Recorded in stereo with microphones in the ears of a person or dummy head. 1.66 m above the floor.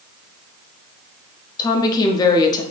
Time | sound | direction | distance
1.6 | a woman speaking | 20° left (ahead or behind) | 0.5 m